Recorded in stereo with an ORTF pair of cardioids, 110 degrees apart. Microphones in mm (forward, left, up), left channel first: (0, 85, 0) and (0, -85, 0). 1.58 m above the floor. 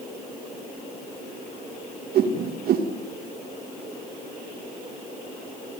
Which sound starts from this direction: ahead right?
A whoosh, at 2.1 s.